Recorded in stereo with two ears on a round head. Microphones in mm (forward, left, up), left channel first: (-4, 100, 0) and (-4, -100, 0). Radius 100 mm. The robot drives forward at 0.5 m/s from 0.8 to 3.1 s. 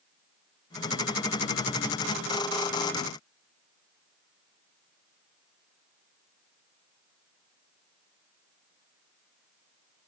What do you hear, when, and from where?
Only background noise.